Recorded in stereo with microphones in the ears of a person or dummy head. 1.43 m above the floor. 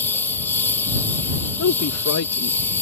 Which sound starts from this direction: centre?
A lawn mower, at 0.0 s.